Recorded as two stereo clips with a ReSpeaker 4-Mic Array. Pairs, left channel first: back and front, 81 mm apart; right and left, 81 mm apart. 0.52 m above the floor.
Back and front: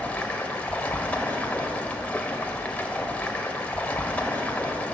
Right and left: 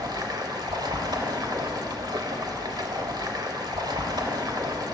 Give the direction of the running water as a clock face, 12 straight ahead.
8 o'clock.